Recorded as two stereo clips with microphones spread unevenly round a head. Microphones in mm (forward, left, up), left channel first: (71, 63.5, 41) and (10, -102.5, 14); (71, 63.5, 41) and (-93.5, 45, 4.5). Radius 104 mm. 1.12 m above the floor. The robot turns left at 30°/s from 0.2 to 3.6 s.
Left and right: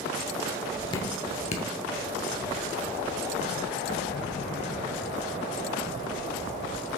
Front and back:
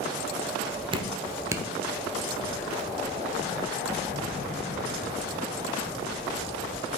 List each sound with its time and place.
0.9 s dripping: 125° left, 1.0 m; by 1.7 s 100° left, 1.0 m